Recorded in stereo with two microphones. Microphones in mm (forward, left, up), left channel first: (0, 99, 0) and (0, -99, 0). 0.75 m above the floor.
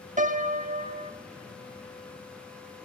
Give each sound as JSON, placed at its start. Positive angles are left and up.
{"t": 0.2, "sound": "a piano", "side_deg": -40, "distance_m": 1.1}